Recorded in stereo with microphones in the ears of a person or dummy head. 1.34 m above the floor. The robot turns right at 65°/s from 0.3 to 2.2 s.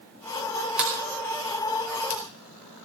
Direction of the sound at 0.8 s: 5° right (ahead or behind).